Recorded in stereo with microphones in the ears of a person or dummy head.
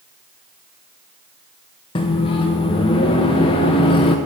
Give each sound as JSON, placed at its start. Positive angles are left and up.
{"t": 1.9, "sound": "a microwave", "side_deg": 30, "distance_m": 0.7}